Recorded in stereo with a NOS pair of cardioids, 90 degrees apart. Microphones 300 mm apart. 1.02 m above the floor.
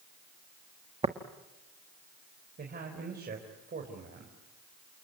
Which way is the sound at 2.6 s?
35° right.